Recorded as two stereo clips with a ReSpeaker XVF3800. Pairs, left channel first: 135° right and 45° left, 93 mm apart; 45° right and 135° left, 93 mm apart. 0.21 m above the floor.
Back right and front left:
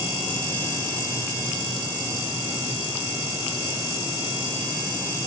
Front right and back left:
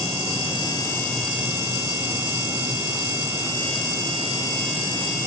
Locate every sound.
Only background noise.